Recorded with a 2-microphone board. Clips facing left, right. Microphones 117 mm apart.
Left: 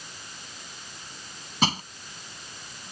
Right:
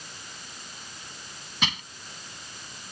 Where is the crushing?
35° left (ahead or behind).